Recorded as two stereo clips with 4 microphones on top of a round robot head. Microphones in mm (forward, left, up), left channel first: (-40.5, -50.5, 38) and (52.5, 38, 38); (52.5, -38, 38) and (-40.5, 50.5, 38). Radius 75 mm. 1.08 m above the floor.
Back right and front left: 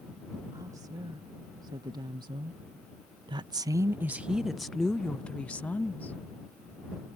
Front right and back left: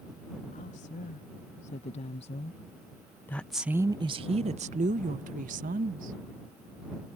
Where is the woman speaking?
15° right; by 6.2 s 145° left.